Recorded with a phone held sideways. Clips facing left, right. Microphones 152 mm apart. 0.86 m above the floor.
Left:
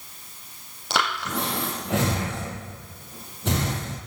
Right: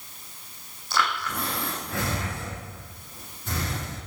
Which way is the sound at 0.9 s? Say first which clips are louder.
Left 1 dB; 75° left (ahead or behind).